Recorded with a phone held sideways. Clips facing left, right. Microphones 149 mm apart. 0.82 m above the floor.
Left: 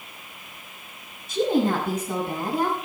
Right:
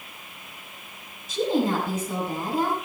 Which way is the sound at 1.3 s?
60° left (ahead or behind).